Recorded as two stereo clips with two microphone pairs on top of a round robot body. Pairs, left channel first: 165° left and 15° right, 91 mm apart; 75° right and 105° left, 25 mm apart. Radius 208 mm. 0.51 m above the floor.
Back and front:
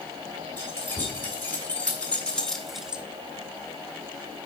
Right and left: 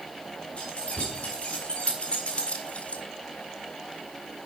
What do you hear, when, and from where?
0.6 s keys jangling: 125° right, 4.5 m; by 3.0 s 90° right, 1.1 m